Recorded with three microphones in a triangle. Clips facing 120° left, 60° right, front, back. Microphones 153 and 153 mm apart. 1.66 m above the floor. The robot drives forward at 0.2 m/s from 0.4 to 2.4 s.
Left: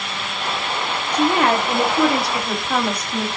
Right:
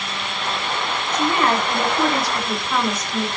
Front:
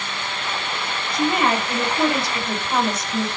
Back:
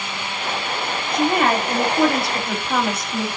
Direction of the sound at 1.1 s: 140° left.